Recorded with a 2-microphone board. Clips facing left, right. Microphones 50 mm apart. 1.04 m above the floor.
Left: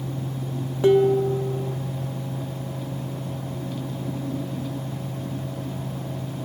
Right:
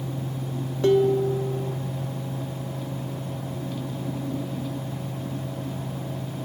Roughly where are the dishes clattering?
Centre.